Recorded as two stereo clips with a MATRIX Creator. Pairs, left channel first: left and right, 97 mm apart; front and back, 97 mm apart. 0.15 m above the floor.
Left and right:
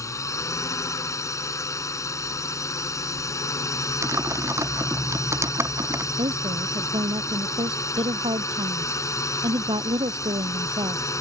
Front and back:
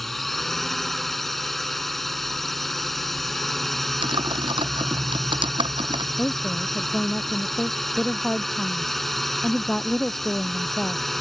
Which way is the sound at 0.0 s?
85° left.